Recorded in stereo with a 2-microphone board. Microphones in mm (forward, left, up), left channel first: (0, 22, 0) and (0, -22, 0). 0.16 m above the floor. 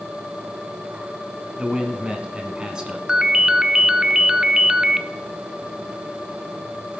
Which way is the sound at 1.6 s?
20° right (ahead or behind).